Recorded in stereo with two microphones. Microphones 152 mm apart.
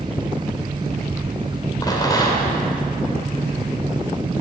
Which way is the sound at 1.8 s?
25° left (ahead or behind).